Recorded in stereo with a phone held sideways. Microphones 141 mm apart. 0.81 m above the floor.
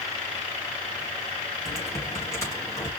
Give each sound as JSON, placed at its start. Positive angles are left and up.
{"t": 1.6, "sound": "typing on a keyboard", "side_deg": 20, "distance_m": 5.0}